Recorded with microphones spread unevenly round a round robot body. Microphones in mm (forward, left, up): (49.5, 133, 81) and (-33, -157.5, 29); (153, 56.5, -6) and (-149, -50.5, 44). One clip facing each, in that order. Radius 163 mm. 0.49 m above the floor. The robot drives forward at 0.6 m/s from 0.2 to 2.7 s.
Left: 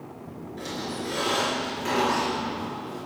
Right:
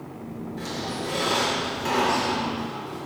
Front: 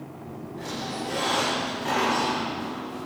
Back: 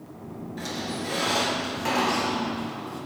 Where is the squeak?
160° left, 4.5 m; by 3.0 s 165° left, 5.5 m.